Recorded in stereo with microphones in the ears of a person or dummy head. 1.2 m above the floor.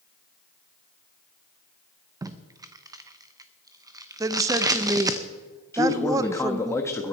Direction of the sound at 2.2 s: 20° right (ahead or behind).